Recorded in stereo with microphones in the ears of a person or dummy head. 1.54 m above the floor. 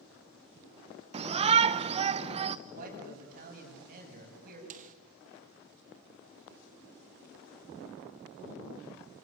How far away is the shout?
About 0.9 m.